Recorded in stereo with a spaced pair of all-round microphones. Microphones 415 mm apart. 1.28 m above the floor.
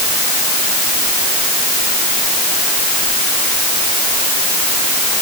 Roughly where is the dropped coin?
I don't hear a dropped coin.